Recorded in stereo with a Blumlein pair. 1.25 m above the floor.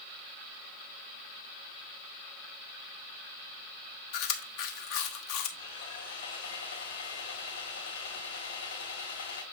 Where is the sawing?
60° left, 3.5 m.